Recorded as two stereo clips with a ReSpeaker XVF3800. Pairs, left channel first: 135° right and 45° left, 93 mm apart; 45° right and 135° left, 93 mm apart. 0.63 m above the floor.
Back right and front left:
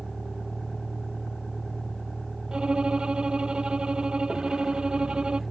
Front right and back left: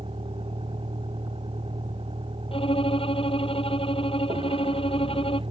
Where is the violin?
35° right.